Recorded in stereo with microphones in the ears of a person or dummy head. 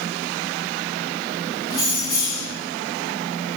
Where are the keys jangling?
20° left (ahead or behind), 1.1 m.